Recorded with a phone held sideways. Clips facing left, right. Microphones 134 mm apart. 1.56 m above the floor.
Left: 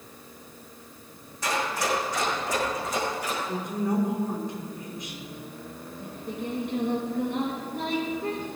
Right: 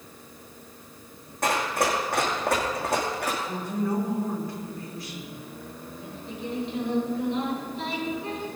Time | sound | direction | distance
1.4 | running footsteps | 55° right (ahead or behind) | 4.5 m
3.4 | a woman speaking | 20° left (ahead or behind) | 4 m
6.0 | singing | 55° left (ahead or behind) | 4.5 m